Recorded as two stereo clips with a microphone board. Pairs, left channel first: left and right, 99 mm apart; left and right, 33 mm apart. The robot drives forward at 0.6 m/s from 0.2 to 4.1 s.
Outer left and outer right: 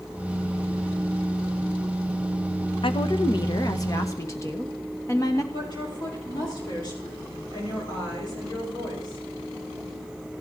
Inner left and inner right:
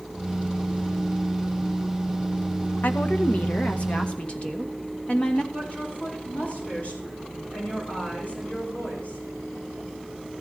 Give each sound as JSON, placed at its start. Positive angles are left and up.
{"t": 2.8, "sound": "a woman speaking", "side_deg": 60, "distance_m": 0.8}
{"t": 5.5, "sound": "a woman speaking", "side_deg": 45, "distance_m": 7.0}